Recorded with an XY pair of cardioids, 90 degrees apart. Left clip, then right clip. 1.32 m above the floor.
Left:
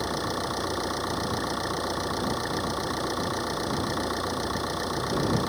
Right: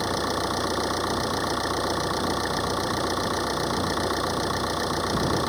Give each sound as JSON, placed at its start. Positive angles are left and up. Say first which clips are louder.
{"t": 0.0, "sound": "an engine running", "louder": "right 3 dB", "azimuth_deg": -30}